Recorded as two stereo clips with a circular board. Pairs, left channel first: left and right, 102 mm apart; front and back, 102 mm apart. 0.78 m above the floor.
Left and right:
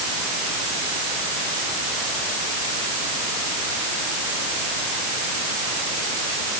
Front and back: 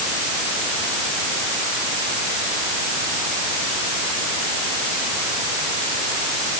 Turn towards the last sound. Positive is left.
No sound to turn to.